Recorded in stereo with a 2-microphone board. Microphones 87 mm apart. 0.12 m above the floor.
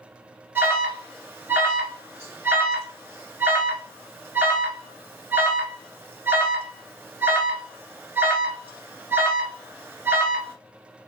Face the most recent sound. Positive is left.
turn(degrees=-25)  # may be behind; listen again after turning